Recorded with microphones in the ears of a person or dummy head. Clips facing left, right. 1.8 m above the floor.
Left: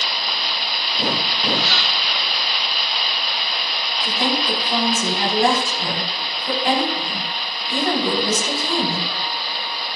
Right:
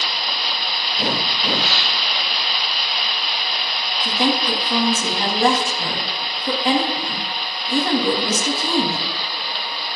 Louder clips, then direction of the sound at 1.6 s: Even; 25° right (ahead or behind).